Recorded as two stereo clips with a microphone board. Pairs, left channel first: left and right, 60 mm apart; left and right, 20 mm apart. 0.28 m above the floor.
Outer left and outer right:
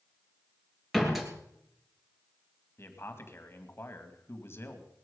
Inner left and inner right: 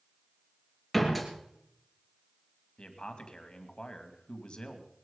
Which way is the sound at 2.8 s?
45° left (ahead or behind).